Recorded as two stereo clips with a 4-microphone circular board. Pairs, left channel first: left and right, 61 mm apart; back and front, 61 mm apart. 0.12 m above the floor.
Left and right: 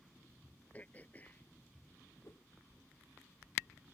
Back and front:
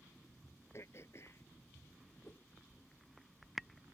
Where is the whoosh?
130° left.